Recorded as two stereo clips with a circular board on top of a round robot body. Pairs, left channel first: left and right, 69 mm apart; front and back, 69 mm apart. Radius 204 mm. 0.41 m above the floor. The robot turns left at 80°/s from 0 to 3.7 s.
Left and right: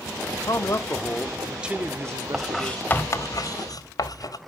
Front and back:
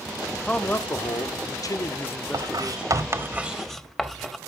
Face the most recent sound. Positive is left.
turn(degrees=90)